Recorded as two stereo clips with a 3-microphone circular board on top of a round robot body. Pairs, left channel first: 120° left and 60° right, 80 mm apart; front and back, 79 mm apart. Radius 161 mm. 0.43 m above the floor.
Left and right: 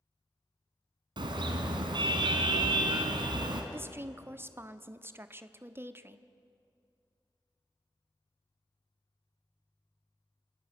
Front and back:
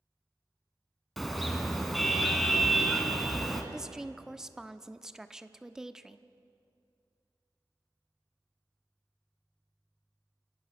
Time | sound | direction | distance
1.2 | a car horn | 90° right | 2.5 m
3.7 | a woman speaking | 100° right | 1.4 m